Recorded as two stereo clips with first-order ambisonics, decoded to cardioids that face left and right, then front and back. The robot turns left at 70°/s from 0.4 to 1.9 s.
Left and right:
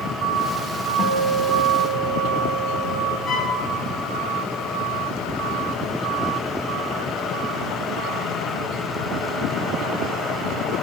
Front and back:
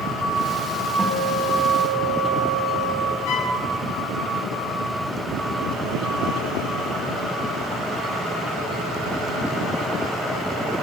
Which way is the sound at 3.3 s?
20° left.